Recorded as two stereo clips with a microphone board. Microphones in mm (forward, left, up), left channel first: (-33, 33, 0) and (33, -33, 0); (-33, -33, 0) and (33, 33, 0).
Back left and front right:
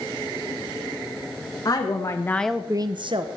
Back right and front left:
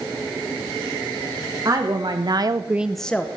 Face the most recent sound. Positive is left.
turn(degrees=-60)